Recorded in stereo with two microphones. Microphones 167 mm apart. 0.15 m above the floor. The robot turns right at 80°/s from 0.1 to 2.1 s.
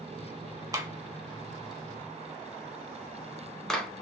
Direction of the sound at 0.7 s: 20° right (ahead or behind).